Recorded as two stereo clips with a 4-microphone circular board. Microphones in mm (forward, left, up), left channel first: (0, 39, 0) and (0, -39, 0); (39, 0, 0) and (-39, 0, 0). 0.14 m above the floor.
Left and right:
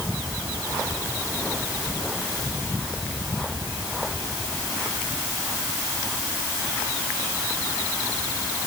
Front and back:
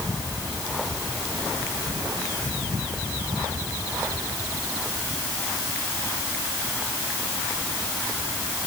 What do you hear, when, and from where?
Only background noise.